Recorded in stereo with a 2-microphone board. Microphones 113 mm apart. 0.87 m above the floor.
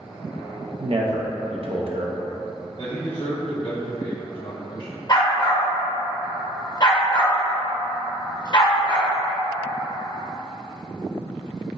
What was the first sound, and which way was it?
A man speaking, 55° right (ahead or behind).